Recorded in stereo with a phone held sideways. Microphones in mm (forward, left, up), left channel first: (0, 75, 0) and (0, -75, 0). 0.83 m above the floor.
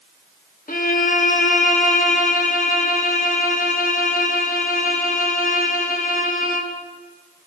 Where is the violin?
65° left (ahead or behind), 0.9 m.